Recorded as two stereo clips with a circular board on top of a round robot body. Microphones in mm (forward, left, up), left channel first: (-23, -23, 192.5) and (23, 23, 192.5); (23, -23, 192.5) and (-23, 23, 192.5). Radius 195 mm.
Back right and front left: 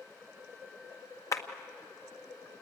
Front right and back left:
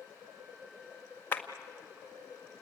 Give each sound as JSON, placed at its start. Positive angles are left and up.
{"t": 1.3, "sound": "a clap", "azimuth_deg": -105, "distance_m": 1.9}